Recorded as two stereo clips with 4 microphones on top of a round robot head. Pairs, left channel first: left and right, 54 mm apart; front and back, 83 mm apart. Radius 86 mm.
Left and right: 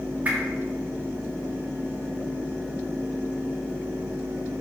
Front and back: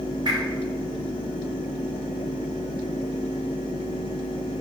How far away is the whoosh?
About 3.5 m.